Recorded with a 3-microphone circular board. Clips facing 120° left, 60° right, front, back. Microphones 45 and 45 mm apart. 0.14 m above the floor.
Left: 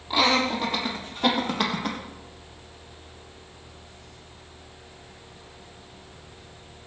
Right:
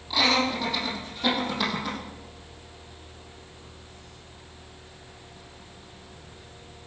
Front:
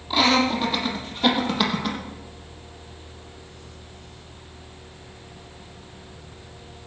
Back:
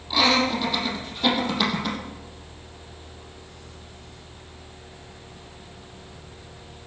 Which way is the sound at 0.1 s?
65° left.